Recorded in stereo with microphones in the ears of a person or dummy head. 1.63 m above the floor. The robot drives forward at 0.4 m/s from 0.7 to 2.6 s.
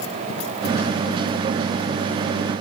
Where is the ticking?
I don't hear ticking.